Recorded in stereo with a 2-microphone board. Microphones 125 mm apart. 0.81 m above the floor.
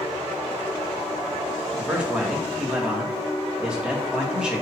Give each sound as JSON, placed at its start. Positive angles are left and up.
{"t": 1.8, "sound": "a man speaking", "side_deg": -10, "distance_m": 1.3}